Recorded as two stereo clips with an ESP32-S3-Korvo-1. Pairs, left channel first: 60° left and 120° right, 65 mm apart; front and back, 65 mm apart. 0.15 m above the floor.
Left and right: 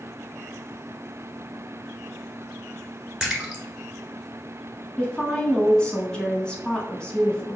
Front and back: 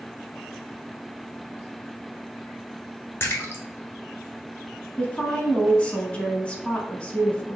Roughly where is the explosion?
I don't hear an explosion.